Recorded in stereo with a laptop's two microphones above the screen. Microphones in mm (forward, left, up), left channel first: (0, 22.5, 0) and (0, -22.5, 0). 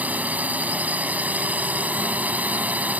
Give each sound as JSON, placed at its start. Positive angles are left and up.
{"t": 0.0, "sound": "a drone", "side_deg": -35}